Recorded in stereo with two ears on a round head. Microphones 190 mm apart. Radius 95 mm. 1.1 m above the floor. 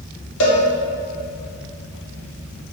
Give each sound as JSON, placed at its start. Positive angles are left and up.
{"t": 0.4, "sound": "a cowbell", "side_deg": 65, "distance_m": 1.4}